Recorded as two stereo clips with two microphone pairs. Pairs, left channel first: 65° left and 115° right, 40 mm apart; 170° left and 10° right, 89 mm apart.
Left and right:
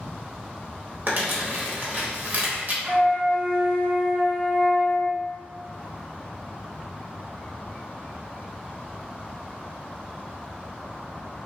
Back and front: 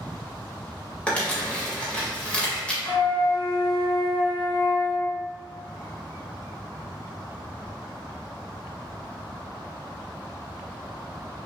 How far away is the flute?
About 2.0 m.